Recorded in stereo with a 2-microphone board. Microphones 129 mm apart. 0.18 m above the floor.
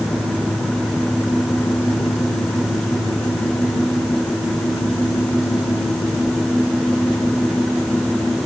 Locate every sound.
Only background noise.